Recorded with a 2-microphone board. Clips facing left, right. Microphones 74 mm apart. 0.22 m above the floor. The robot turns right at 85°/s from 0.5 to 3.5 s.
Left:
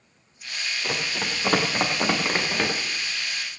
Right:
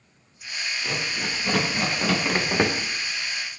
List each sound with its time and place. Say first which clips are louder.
0.8 s running footsteps: left 1 dB; 35° left (ahead or behind), 5.5 m; by 2.7 s 35° right (ahead or behind), 3.5 m